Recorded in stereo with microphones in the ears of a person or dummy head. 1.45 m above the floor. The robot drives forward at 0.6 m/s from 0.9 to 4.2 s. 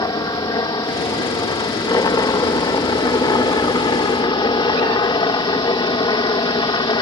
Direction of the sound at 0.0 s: 20° left (ahead or behind).